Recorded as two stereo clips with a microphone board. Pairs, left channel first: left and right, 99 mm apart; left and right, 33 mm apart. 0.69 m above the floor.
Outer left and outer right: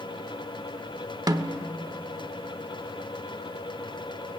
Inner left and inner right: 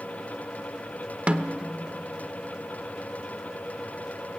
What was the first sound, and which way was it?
A snare drum, 45° right (ahead or behind).